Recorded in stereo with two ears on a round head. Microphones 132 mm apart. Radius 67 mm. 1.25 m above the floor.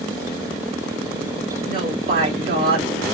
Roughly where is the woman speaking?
Right.